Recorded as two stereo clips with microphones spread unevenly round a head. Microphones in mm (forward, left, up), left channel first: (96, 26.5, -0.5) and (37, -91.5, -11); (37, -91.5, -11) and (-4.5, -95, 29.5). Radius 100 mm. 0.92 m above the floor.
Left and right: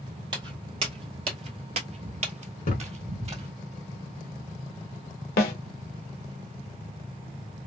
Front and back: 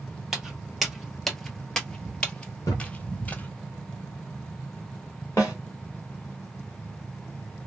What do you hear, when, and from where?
0.3 s footsteps: 175° right, 1.3 m; by 3.5 s 80° right, 1.6 m
2.6 s a thud: 60° left, 1.4 m
5.4 s a snare drum: 75° left, 0.9 m